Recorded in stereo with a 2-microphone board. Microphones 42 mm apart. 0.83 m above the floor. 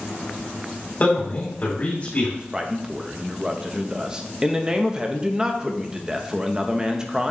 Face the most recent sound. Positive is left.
turn(degrees=-15)  # may be behind; listen again after turning